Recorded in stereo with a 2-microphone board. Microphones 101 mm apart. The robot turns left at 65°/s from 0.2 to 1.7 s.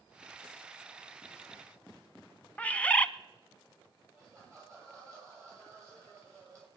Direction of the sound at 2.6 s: 15° left (ahead or behind).